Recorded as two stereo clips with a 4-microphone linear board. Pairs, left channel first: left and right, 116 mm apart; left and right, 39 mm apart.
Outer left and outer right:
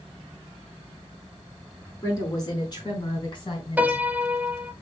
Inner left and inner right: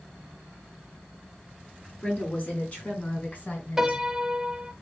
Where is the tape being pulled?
I don't hear tape being pulled.